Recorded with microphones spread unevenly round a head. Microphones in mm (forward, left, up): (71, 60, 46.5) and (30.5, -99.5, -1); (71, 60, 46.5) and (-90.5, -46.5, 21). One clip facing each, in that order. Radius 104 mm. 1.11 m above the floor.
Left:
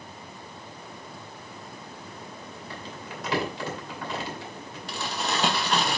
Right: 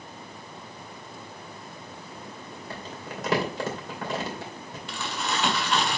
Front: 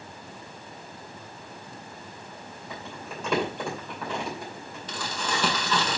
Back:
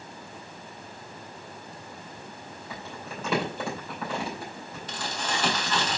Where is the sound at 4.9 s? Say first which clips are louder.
Left 1 dB, front 1 dB; 35° left, 1.5 m.